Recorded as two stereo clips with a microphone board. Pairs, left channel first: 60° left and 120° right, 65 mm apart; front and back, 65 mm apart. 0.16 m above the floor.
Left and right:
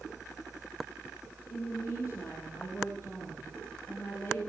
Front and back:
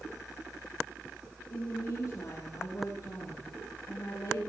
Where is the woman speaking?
30° left, 6.5 m; by 4.5 s 10° left, 4.5 m.